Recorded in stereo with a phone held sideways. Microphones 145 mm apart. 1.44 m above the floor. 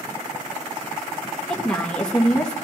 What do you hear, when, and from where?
1.5 s a woman speaking: 5° left (ahead or behind), 2 m